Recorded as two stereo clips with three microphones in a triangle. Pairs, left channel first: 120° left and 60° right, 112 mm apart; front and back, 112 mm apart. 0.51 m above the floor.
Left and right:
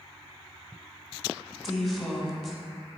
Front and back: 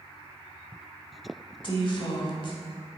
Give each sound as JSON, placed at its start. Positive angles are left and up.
{"t": 1.6, "sound": "a woman speaking", "azimuth_deg": 30, "distance_m": 1.8}